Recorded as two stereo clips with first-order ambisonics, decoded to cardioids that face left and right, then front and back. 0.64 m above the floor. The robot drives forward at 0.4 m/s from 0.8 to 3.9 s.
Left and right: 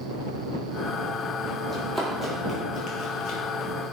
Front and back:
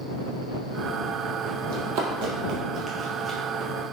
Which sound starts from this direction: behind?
Running footsteps, at 1.7 s.